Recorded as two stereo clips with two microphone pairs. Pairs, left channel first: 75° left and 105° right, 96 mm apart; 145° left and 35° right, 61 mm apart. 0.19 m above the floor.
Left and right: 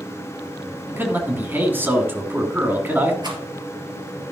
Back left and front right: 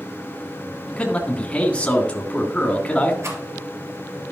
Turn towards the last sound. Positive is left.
turn(degrees=-70)